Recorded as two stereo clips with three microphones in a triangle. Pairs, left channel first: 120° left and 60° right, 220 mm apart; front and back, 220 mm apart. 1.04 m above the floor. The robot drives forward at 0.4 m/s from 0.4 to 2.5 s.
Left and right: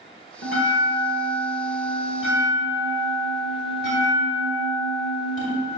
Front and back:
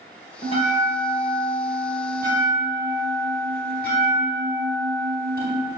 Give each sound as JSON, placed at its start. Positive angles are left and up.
{"t": 0.4, "sound": "a bell", "azimuth_deg": 120, "distance_m": 1.6}